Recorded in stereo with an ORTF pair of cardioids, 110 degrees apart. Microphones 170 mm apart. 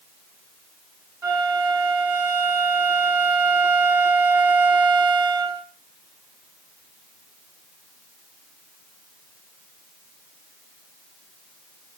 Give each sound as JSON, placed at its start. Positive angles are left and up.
{"t": 1.2, "sound": "a flute", "azimuth_deg": -20, "distance_m": 1.2}